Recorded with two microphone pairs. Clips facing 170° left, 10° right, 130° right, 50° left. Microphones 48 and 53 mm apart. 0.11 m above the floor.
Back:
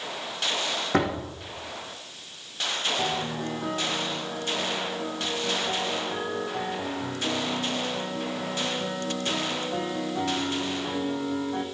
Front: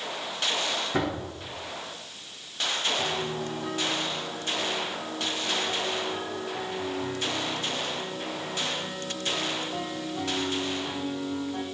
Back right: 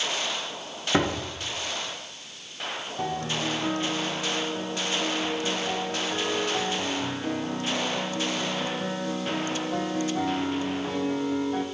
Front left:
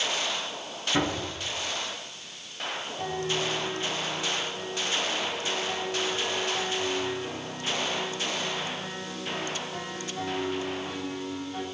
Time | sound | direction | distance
0.9 | a door slam | 165° right | 4.5 m
3.0 | a piano | 150° right | 2.5 m